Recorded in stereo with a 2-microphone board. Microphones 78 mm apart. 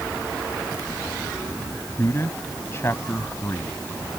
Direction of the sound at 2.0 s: 30° left (ahead or behind).